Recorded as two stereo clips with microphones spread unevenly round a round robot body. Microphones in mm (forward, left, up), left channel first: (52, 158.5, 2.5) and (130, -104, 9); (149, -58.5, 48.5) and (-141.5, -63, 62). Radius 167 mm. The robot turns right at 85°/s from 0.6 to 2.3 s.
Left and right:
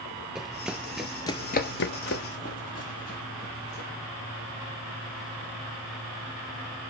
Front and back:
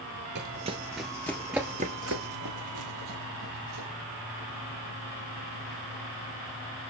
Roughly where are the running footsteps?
Behind.